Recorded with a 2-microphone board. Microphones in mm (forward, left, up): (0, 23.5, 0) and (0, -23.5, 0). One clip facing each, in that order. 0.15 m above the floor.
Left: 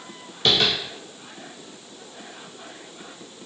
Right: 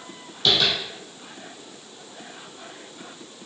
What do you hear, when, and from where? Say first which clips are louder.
0.5 s tapping: left 1 dB; 50° left (ahead or behind), 1.6 m